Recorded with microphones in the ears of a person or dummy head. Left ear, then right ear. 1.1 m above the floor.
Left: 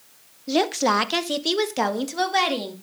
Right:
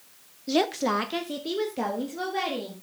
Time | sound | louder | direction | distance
0.5 | a woman speaking | left 4 dB | 5° right (ahead or behind) | 0.7 m